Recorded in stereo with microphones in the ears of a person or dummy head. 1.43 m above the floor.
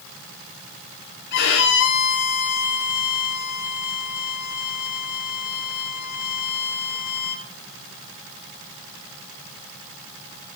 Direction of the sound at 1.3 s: 55° left (ahead or behind).